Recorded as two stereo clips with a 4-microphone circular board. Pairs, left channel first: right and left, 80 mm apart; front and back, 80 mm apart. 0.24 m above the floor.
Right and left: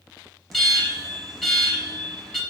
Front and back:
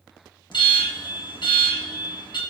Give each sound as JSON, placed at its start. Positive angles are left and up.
{"t": 0.5, "sound": "an alarm", "azimuth_deg": 0, "distance_m": 4.0}